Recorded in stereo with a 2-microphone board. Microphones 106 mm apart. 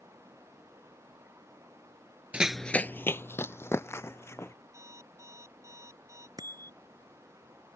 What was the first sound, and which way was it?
Running footsteps, 10° right (ahead or behind).